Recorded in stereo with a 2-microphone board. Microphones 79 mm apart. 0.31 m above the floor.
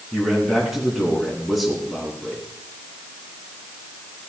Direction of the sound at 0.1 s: Centre (ahead or behind).